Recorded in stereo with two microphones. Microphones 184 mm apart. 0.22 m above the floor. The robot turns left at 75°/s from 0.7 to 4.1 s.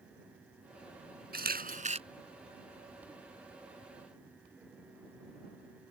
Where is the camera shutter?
90° right; by 2.0 s 140° right.